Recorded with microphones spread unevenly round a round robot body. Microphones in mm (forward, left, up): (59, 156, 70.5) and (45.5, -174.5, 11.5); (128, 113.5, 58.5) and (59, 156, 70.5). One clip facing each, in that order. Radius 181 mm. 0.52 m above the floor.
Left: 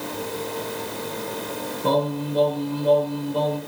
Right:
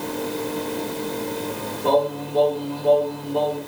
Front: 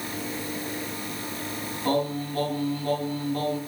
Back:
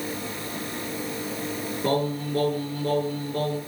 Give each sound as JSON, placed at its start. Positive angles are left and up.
{"t": 1.8, "sound": "singing", "azimuth_deg": 110, "distance_m": 7.5}